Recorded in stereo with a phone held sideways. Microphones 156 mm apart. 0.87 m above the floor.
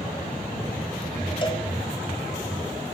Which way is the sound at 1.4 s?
30° left (ahead or behind).